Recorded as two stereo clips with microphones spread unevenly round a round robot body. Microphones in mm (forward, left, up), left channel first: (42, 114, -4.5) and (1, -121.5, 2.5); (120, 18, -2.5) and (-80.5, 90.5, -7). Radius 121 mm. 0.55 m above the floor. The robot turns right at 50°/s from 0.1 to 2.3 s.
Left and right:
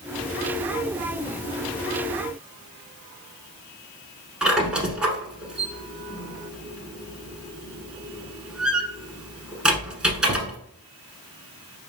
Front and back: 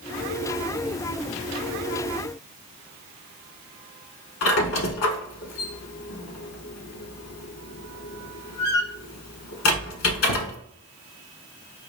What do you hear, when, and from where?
4.4 s a squeak: 15° right, 0.9 m